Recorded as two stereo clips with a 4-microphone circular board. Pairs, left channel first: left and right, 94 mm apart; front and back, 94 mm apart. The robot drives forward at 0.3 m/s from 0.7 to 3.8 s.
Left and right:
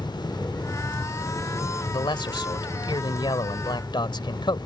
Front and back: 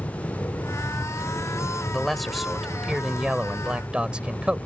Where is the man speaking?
85° left; by 4.7 s 105° left.